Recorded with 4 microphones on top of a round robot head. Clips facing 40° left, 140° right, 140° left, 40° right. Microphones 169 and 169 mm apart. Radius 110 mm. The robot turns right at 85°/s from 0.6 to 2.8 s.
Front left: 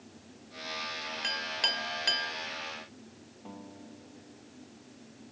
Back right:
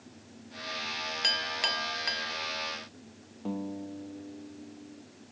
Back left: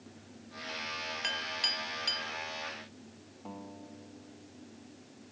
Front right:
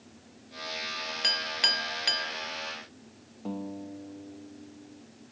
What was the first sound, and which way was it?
A clink, 90° right.